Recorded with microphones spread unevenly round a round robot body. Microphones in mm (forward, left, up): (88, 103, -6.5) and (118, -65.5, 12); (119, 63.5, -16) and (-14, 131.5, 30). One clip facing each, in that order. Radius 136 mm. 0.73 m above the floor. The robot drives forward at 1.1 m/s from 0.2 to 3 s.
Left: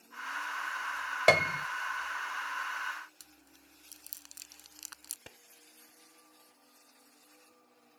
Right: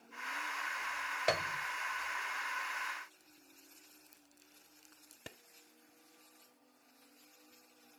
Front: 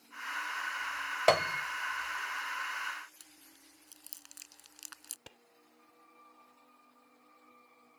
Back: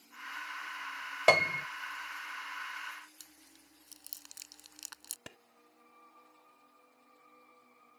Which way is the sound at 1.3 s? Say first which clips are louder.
Left 9 dB, even; 75° left.